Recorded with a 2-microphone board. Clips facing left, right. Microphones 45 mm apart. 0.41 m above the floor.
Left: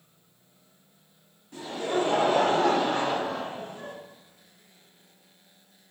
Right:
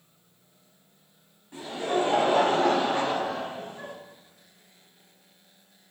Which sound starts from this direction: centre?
Laughter, at 1.5 s.